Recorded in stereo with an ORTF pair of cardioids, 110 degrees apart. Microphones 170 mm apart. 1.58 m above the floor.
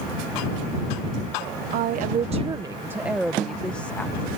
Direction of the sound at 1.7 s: 70° right.